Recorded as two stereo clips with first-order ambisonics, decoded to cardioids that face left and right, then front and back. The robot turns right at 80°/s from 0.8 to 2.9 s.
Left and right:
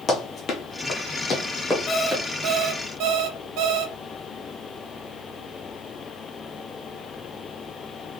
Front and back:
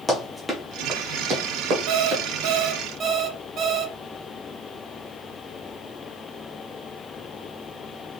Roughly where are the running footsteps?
Ahead left.